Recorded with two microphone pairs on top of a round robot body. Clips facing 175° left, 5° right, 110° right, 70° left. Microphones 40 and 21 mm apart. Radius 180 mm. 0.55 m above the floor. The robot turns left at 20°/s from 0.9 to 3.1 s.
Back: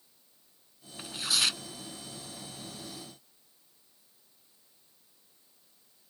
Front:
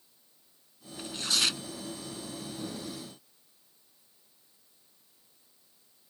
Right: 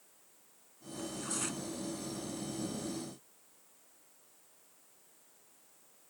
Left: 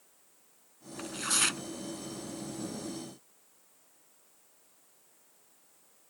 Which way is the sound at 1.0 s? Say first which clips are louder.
Even, left 8 dB; 95° left.